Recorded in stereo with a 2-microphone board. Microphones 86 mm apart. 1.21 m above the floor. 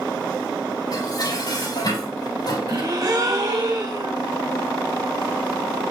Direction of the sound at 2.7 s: 45° right (ahead or behind).